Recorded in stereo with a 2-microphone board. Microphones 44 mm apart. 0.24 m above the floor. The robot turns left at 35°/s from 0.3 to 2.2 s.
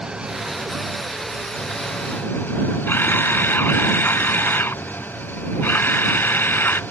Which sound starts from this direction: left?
A camera shutter, at 2.9 s.